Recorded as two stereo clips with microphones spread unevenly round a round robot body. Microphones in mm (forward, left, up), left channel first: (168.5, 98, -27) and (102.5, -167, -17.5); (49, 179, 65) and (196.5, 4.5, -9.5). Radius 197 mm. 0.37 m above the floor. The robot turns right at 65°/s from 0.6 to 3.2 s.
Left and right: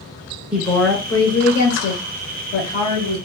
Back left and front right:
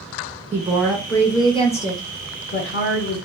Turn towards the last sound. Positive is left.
turn(degrees=155)